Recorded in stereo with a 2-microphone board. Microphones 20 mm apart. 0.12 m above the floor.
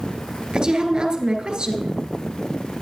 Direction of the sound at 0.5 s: 45° right (ahead or behind).